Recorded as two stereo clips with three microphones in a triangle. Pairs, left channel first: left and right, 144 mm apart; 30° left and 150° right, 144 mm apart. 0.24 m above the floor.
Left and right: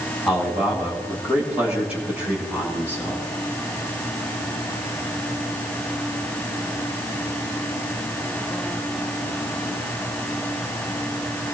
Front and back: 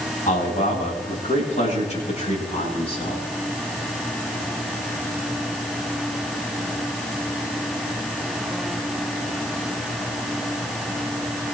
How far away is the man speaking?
About 9.5 m.